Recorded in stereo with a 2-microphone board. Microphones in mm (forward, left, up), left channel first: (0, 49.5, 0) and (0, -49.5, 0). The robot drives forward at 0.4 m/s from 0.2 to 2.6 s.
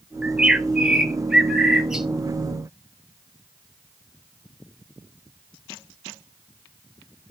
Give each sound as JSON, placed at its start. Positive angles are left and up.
{"t": 0.2, "sound": "a bird", "side_deg": -10, "distance_m": 0.5}